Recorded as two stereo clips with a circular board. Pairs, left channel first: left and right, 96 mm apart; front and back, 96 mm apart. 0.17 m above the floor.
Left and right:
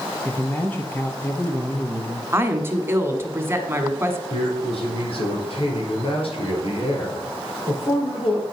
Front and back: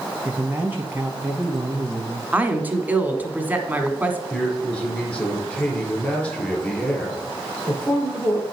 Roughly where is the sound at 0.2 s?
Behind left.